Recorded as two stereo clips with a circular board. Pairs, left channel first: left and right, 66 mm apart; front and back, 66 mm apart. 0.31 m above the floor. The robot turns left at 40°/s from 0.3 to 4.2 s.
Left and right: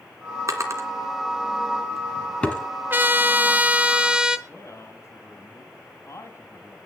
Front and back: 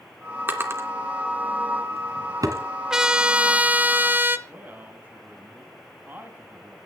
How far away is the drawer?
About 2 m.